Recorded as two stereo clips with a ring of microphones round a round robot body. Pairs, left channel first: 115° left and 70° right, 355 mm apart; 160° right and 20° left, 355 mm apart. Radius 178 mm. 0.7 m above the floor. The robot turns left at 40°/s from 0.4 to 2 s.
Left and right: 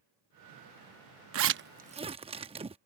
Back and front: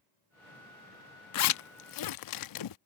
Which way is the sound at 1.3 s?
115° right.